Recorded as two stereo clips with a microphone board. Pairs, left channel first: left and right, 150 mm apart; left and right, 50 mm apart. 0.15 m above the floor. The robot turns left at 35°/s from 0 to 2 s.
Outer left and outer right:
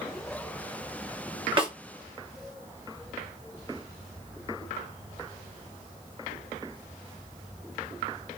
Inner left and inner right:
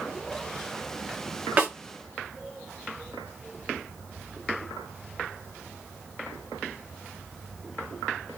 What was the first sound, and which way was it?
A snare drum, 35° right (ahead or behind).